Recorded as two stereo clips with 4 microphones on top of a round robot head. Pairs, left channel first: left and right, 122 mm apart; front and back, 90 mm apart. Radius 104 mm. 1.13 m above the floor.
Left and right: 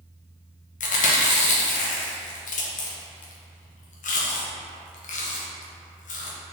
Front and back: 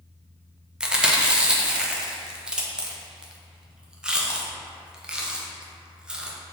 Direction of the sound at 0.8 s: 100° left.